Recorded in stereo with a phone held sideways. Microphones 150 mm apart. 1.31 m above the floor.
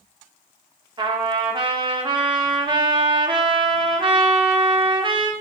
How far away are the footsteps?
No footsteps in this recording.